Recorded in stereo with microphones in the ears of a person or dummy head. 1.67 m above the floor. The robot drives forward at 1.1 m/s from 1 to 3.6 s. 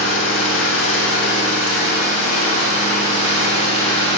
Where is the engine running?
75° left (ahead or behind), 3 m; by 4.2 s 45° left (ahead or behind), 4.5 m.